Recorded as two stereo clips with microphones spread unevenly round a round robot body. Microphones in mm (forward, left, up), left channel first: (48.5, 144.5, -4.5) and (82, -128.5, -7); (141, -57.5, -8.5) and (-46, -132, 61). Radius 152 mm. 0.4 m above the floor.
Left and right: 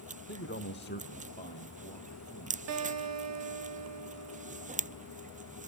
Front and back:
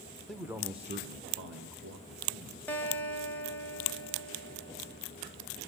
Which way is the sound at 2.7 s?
50° right.